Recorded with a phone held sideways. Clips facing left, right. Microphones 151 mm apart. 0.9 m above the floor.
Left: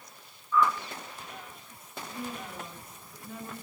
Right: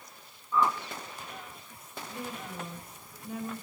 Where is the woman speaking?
15° right (ahead or behind), 8.5 m.